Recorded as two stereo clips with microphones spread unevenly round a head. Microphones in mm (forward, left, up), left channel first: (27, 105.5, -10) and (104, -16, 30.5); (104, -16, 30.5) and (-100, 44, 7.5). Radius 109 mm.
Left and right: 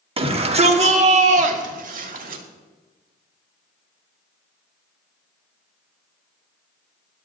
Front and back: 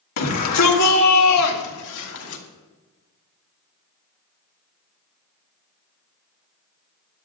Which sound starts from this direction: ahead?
A shout, at 0.2 s.